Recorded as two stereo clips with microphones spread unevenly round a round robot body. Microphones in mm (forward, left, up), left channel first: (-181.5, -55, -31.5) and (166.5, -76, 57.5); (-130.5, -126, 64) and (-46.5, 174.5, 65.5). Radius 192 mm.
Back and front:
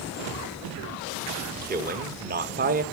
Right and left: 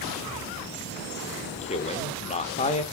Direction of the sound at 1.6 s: 70° right.